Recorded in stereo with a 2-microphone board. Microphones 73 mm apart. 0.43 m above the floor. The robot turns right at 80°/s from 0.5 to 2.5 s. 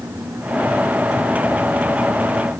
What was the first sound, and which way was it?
Only background noise.